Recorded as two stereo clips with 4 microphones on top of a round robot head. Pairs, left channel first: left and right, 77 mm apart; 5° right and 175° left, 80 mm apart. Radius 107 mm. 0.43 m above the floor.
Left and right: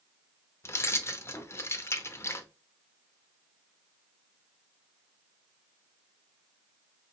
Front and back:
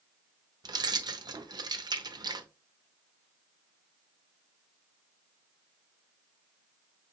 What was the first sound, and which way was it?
Keys jangling, 145° left.